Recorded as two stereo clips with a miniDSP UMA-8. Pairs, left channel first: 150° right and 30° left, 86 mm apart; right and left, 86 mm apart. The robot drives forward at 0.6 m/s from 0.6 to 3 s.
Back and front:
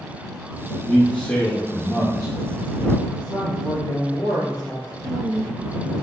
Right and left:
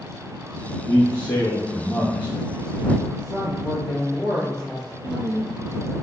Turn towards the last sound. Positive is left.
turn(degrees=85)